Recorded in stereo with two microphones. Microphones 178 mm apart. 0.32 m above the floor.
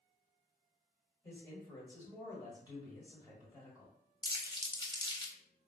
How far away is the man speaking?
About 1.6 m.